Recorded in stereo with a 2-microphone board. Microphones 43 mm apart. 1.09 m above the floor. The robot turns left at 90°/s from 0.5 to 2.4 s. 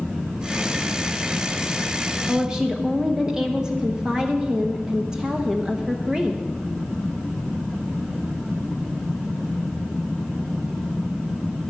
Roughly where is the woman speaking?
Centre.